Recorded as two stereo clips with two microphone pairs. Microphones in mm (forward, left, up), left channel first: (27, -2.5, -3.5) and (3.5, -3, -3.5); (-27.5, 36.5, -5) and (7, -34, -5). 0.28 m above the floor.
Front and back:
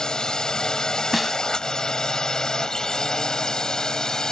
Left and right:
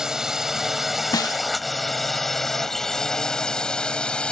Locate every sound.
0.0 s a drone: 10° left; by 4.3 s 45° left
1.1 s a snare drum: 95° left